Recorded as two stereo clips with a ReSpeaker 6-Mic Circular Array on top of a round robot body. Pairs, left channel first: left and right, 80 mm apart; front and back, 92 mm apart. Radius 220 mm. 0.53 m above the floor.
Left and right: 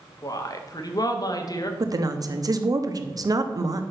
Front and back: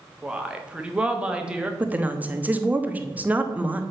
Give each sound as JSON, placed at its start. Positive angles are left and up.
{"t": 0.2, "sound": "a woman speaking", "azimuth_deg": 100, "distance_m": 1.7}
{"t": 1.8, "sound": "a woman speaking", "azimuth_deg": -110, "distance_m": 1.3}